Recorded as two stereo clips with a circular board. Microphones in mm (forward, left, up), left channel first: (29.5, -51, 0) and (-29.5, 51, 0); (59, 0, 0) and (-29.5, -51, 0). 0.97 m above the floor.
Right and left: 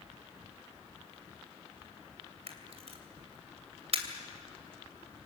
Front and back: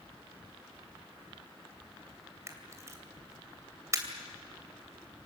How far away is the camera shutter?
About 2.5 m.